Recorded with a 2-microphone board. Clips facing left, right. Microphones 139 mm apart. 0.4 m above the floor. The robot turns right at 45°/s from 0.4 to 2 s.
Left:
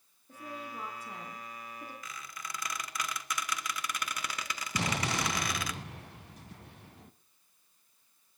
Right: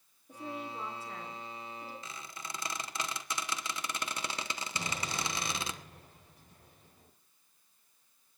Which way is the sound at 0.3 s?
15° right.